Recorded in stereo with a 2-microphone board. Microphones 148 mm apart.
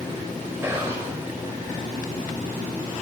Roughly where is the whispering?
Centre.